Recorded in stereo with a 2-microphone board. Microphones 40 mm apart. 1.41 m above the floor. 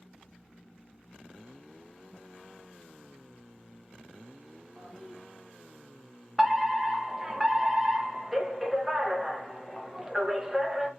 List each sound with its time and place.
4.8 s a toilet flushing: 5° right (ahead or behind), 1.4 m
6.4 s a fire alarm: 5° right (ahead or behind), 0.8 m